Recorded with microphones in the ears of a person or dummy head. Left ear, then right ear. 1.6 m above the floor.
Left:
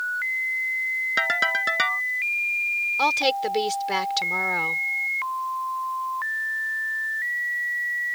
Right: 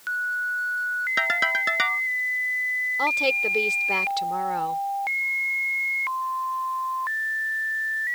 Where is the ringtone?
5° left (ahead or behind).